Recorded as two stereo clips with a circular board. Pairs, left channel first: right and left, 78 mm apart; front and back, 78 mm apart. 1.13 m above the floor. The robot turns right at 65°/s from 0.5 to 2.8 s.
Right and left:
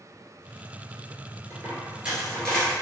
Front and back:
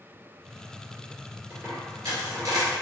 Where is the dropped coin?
130° left, 1.7 m; by 2.7 s 155° right, 1.7 m.